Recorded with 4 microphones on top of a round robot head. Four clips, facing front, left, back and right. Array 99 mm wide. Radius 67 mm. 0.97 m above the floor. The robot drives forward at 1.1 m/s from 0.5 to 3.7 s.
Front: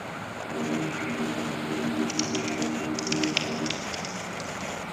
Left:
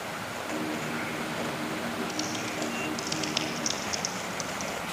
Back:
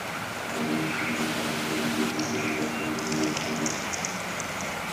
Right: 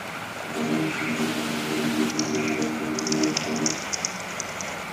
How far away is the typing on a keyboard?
About 3.5 m.